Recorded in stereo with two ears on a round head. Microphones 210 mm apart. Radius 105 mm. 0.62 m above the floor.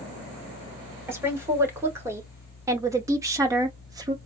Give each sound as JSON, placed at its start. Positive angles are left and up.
{"t": 1.1, "sound": "a woman speaking", "side_deg": -10, "distance_m": 2.0}